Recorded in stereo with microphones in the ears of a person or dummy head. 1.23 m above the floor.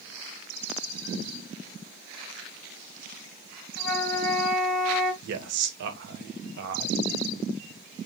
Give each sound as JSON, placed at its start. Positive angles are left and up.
{"t": 3.8, "sound": "a flute", "side_deg": -65, "distance_m": 2.0}
{"t": 5.2, "sound": "a man speaking", "side_deg": -55, "distance_m": 0.7}